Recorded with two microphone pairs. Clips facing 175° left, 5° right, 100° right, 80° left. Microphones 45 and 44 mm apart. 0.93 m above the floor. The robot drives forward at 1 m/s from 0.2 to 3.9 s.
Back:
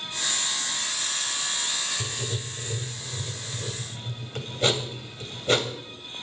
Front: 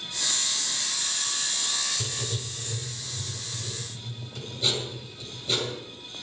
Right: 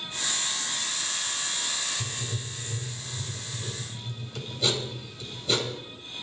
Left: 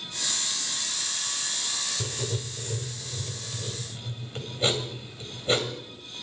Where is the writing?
80° left, 1.5 m; by 5.7 s 140° left, 2.5 m.